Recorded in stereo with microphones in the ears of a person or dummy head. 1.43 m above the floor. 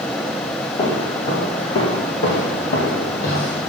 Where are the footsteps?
30° left (ahead or behind), 1.8 m; by 3.6 s 45° left (ahead or behind), 2 m.